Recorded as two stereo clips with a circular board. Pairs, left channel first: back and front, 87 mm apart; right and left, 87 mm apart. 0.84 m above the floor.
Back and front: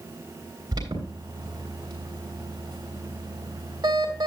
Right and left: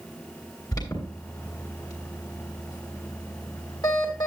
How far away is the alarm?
About 3.5 m.